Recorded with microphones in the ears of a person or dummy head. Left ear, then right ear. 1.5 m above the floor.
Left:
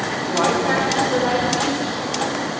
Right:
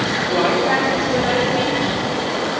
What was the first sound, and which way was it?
A woman speaking, 20° left (ahead or behind).